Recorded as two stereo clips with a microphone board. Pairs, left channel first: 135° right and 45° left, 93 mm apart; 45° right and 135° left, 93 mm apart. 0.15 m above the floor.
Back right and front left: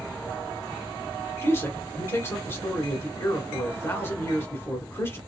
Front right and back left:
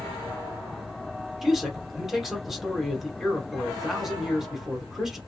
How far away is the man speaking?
About 1.3 m.